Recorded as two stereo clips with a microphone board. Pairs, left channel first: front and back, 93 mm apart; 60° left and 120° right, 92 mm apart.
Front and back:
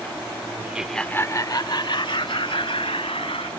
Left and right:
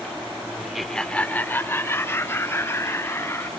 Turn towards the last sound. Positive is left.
turn(degrees=0)